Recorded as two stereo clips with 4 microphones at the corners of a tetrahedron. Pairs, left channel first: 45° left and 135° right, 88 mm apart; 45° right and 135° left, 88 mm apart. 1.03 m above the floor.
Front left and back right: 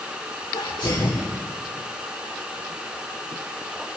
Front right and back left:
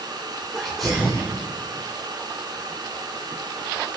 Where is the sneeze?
45° left, 3.5 m.